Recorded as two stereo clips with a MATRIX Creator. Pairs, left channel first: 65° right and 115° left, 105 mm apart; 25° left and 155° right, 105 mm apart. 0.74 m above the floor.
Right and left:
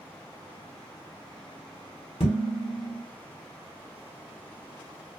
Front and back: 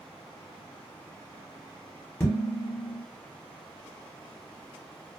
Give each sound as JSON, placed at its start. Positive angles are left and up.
{"t": 2.2, "sound": "dishes clattering", "azimuth_deg": -45, "distance_m": 1.4}